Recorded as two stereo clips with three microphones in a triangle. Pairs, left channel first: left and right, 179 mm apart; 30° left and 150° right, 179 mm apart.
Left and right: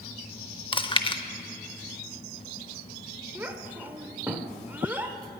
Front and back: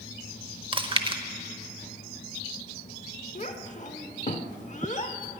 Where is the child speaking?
10° right, 0.9 m.